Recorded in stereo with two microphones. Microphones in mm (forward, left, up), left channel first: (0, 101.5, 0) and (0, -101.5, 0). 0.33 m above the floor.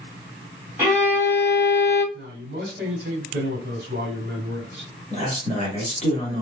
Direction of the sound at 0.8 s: 10° right (ahead or behind).